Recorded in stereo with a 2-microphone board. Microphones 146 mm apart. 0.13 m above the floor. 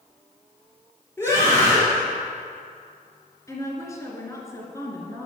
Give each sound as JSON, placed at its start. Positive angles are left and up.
{"t": 1.2, "sound": "a scream", "side_deg": 15, "distance_m": 2.5}
{"t": 3.5, "sound": "a woman speaking", "side_deg": 20, "distance_m": 2.0}